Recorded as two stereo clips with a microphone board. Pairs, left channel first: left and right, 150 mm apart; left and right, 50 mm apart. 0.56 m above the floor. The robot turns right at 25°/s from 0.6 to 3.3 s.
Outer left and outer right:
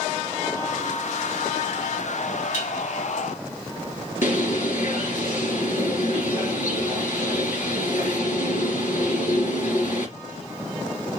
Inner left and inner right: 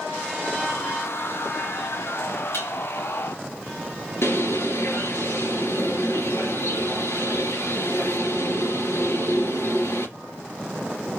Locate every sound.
2.5 s dishes clattering: 60° left (ahead or behind), 2 m; by 2.7 s 65° left (ahead or behind), 2 m
4.2 s a bird: 70° left (ahead or behind), 3.5 m